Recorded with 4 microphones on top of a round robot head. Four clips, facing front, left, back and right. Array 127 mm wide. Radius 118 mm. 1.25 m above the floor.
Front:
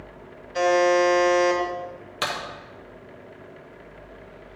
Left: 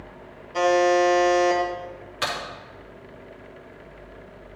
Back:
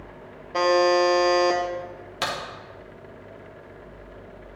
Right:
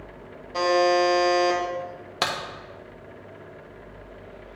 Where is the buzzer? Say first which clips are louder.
Left 1 dB, even; 170° right, 1.6 m.